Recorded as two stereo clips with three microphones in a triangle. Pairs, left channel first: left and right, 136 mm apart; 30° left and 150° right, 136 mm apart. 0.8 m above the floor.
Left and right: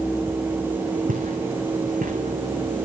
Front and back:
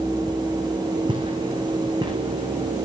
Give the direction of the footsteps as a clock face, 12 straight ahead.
3 o'clock.